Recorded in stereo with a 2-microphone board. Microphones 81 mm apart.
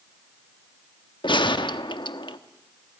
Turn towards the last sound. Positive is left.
turn(degrees=75)  # may be behind; listen again after turning